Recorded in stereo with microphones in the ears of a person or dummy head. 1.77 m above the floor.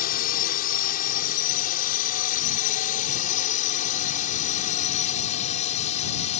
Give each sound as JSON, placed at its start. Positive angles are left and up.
{"t": 0.0, "sound": "a drone", "side_deg": 55}